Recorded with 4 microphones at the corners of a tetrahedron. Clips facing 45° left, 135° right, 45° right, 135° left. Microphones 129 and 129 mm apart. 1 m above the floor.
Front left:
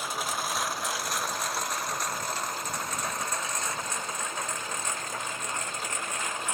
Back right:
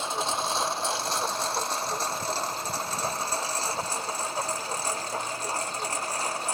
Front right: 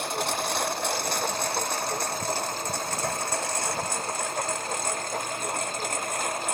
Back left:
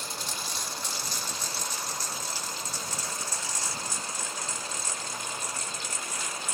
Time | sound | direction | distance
0.0 | a lawn mower | 70° right | ?